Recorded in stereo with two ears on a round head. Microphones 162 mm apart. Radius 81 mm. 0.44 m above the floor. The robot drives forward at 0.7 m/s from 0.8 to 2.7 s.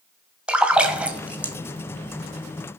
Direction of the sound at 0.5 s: 5° right (ahead or behind).